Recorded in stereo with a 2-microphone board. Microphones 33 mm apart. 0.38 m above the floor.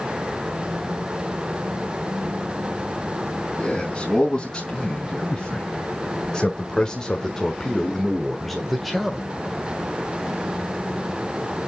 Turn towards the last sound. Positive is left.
turn(degrees=-5)  # may be behind; listen again after turning